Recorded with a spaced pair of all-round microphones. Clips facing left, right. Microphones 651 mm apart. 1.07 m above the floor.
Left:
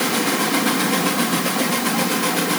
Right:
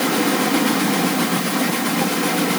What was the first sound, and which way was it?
Only background noise.